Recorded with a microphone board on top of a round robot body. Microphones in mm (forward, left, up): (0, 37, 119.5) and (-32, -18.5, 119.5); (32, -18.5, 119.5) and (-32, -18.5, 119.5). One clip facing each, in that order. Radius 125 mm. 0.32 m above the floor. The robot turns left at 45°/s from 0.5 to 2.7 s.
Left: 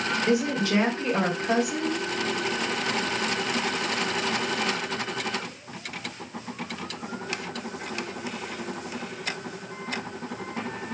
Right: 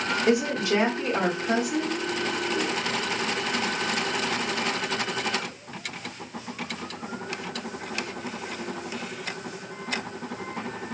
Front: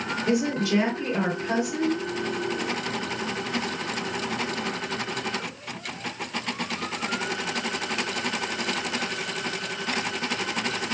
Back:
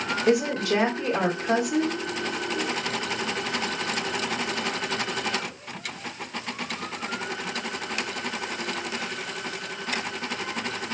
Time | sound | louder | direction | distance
0.3 | a woman speaking | right 1 dB, back 2 dB | straight behind | 1.7 m